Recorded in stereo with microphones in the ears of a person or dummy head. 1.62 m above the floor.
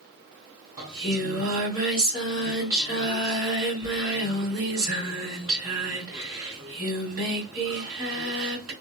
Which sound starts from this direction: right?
Singing, at 0.8 s.